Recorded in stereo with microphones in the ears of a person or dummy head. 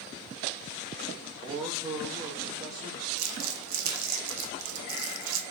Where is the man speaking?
15° right (ahead or behind), 0.9 m.